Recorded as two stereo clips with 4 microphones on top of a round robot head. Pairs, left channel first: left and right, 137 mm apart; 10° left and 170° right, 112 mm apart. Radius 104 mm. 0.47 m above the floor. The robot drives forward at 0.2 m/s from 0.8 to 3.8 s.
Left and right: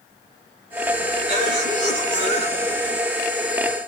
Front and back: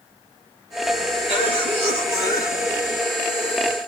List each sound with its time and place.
1.3 s a cough: 135° right, 6 m